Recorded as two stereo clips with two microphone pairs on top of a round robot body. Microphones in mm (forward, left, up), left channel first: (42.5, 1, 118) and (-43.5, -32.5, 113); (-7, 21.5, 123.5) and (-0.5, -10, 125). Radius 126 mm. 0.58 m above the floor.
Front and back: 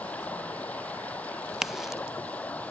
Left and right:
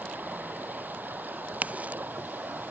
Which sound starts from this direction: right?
A crack, at 1.5 s.